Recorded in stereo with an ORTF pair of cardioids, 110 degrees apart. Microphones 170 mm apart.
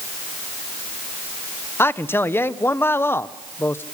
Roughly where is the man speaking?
Ahead.